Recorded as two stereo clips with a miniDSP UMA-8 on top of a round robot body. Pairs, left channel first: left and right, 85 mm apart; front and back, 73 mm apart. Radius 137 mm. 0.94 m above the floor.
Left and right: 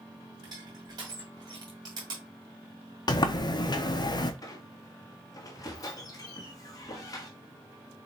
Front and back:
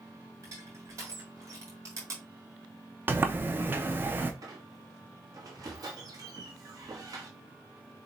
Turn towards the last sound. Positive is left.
turn(degrees=140)